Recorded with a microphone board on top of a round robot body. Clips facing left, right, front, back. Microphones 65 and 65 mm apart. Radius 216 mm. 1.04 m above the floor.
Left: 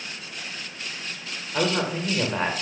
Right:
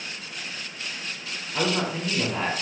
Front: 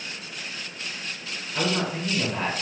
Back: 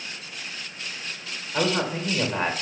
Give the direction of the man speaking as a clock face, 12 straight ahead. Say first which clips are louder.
Left 1 dB, back 2 dB; 8 o'clock.